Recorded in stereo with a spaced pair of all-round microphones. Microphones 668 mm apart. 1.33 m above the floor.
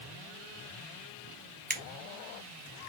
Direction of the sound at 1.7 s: 15° right (ahead or behind).